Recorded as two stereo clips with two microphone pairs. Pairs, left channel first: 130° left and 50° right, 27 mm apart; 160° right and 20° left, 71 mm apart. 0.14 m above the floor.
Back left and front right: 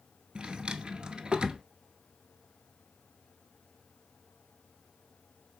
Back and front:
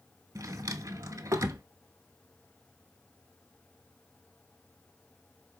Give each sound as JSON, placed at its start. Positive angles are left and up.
{"t": 0.3, "sound": "a drawer", "azimuth_deg": -5, "distance_m": 0.5}